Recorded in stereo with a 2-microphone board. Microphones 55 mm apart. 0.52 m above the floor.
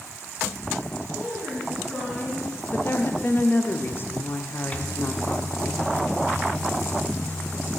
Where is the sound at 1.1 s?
15° left (ahead or behind), 5 m.